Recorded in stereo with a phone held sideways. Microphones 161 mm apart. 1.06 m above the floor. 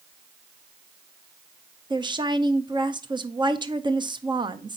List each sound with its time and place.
1.9 s a woman speaking: 30° right (ahead or behind), 0.5 m